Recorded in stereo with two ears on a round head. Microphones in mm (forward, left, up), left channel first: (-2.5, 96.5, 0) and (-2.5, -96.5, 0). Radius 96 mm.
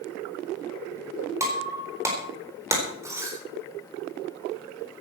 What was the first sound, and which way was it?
Breaking glass, 15° right (ahead or behind).